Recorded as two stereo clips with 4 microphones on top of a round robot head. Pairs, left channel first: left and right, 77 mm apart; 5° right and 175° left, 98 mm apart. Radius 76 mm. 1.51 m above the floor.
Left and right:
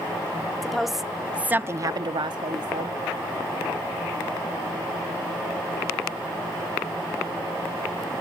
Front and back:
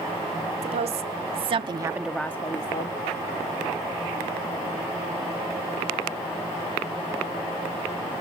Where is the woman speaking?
Straight behind, 1.7 m; by 3.0 s 45° right, 1.3 m.